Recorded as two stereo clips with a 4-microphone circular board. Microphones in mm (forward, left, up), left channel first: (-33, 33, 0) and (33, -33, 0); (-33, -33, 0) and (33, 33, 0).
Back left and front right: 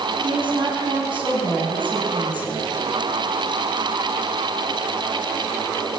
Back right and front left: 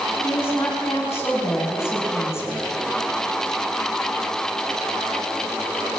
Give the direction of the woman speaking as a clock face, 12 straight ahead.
2 o'clock.